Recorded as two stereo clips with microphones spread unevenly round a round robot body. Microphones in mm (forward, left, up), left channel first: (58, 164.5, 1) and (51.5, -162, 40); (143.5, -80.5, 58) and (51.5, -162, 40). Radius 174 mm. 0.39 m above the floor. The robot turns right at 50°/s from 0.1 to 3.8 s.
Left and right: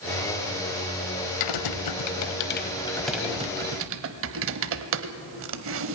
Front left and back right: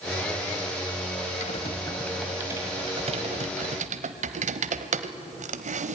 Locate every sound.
1.4 s typing on a keyboard: 90° left, 0.9 m; by 6.0 s 150° right, 0.9 m